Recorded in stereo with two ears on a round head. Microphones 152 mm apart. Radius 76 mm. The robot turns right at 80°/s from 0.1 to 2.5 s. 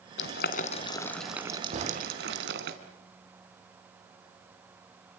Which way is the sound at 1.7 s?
50° right (ahead or behind).